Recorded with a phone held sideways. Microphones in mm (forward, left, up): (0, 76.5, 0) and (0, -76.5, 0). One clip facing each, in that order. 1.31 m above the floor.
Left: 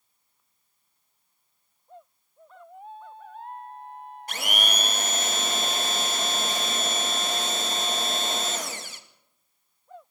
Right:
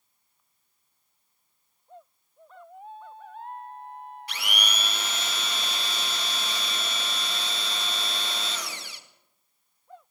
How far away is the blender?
About 1.9 m.